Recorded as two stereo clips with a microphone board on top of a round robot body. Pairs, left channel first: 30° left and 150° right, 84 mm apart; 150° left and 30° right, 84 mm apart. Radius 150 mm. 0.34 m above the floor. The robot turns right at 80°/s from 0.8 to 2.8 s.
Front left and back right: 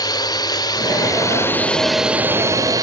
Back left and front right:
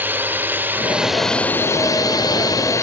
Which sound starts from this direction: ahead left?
A drone, at 0.0 s.